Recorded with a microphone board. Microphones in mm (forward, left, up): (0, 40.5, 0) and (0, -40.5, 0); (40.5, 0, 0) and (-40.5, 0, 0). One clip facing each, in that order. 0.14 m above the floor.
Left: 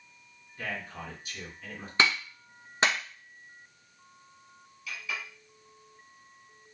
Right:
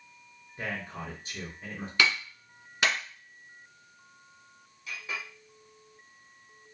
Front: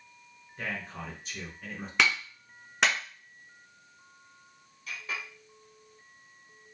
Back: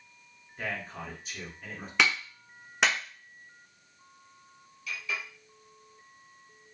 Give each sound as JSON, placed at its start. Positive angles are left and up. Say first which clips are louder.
{"t": 0.6, "sound": "a man speaking", "louder": "right 1 dB, back 1 dB", "azimuth_deg": -95, "distance_m": 1.9}
{"t": 2.0, "sound": "a clap", "louder": "left 1 dB, even", "azimuth_deg": 90, "distance_m": 1.1}
{"t": 4.9, "sound": "a clink", "louder": "even, back 1 dB", "azimuth_deg": -45, "distance_m": 2.0}